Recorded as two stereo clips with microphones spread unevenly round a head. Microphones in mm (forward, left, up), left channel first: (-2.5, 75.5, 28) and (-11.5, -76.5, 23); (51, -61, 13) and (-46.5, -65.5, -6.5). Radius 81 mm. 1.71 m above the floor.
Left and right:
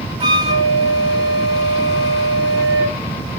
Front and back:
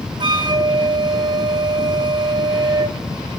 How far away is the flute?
About 1.8 m.